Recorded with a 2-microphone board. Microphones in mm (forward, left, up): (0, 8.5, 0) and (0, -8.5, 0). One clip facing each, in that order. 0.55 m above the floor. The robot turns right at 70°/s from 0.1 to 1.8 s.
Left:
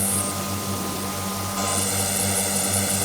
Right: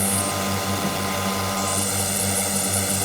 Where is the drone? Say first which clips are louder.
Right 3 dB; 150° right; by 3.0 s 35° right.